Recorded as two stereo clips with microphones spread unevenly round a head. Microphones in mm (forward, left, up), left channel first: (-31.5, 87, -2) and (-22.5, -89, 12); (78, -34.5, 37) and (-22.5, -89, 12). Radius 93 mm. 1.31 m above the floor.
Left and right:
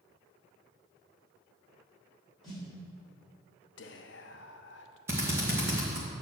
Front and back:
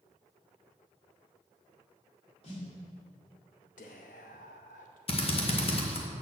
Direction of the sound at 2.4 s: 5° left.